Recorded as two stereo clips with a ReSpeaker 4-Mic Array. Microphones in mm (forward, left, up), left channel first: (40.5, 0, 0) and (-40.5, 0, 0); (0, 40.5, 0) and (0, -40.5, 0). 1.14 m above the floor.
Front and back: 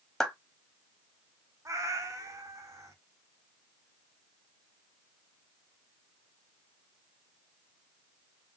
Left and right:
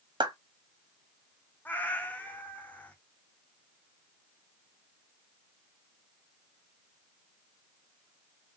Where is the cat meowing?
155° left, 0.7 m.